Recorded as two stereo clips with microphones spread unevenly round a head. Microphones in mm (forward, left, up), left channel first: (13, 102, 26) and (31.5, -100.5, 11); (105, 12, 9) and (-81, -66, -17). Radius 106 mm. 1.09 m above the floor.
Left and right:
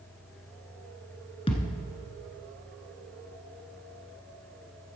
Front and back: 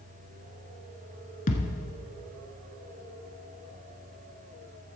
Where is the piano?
No piano in this recording.